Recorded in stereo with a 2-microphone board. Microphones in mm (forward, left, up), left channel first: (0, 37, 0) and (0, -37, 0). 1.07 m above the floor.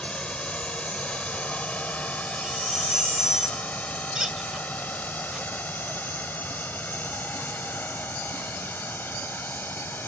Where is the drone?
15° left (ahead or behind); by 10.1 s 25° left (ahead or behind).